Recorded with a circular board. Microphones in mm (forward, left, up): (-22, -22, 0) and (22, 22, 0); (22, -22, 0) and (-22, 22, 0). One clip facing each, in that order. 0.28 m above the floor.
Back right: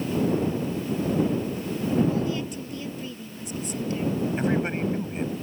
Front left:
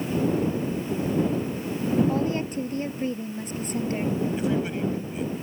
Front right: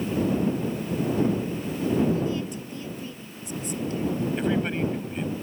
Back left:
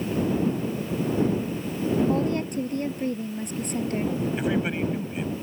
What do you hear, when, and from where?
2.1 s a woman speaking: 95° left
4.4 s a man speaking: 145° right